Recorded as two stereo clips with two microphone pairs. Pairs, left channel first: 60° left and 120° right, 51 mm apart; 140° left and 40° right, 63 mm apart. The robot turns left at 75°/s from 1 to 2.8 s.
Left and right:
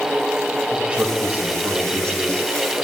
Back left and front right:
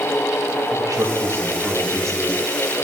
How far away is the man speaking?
About 2 m.